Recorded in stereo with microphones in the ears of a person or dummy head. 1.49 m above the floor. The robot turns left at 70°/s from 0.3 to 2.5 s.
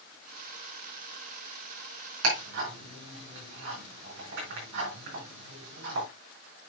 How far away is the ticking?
About 4.5 m.